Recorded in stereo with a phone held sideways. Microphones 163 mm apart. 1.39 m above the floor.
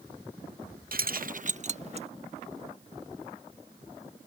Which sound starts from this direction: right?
Keys jangling, at 0.9 s.